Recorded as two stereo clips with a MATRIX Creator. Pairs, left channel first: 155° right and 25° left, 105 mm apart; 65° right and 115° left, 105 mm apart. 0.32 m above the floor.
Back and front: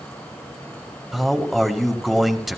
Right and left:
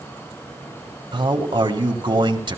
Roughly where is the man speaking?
Left.